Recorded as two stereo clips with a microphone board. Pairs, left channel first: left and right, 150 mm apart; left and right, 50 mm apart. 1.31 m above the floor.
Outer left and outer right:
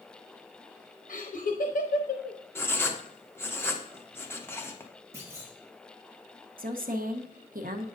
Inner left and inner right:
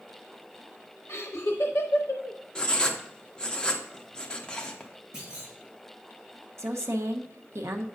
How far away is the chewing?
I don't hear chewing.